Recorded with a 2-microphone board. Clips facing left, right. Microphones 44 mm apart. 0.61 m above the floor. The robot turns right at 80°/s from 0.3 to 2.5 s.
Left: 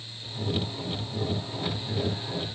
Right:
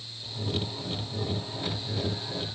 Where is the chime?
No chime in this recording.